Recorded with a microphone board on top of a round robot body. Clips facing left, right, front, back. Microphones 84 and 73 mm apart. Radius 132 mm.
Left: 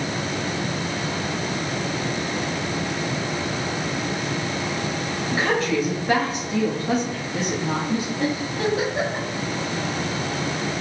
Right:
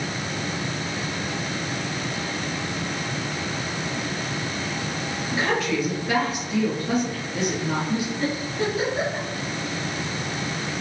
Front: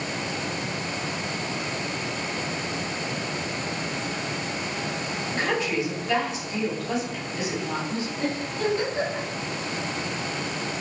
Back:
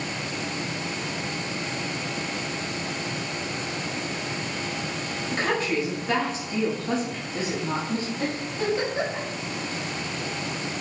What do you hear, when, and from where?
5.3 s a woman speaking: 135° left, 1.1 m
8.2 s a giggle: 115° left, 1.6 m